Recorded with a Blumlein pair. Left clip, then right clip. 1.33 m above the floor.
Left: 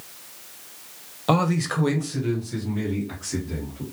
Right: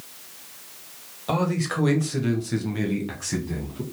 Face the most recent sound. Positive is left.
turn(degrees=-55)